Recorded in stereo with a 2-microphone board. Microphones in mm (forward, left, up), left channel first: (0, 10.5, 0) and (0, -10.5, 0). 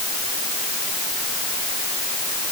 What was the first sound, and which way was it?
Only background noise.